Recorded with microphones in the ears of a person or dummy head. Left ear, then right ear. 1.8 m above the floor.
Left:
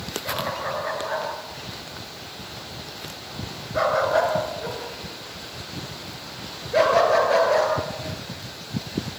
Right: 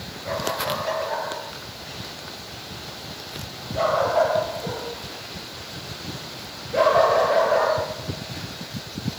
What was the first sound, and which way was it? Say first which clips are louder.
A dog barking: right 3 dB; 25° left (ahead or behind).